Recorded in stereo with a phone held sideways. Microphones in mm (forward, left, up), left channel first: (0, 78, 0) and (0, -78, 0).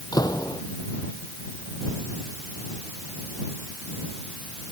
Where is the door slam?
25° left (ahead or behind).